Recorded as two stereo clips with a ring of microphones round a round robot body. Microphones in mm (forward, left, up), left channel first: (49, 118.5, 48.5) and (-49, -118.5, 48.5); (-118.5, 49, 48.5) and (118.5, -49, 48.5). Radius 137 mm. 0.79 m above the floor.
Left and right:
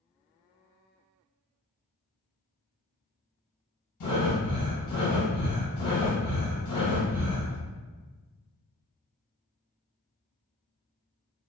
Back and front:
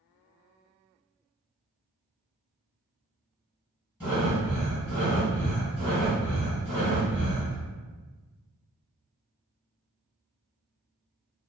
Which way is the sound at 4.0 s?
60° left.